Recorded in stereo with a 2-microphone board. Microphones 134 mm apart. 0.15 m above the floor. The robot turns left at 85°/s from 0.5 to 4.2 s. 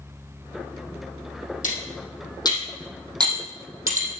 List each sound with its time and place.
1.6 s cutlery clinking: 75° left (ahead or behind), 3.5 m; by 4.1 s 70° right (ahead or behind), 3.5 m